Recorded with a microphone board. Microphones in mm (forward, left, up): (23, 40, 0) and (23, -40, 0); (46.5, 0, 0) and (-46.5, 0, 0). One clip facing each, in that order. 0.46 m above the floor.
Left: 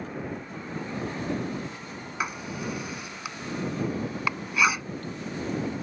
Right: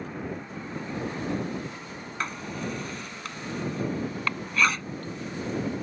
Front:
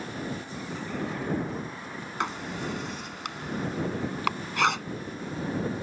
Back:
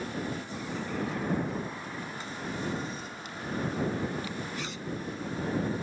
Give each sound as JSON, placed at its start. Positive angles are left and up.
{"t": 2.2, "sound": "writing", "azimuth_deg": 10}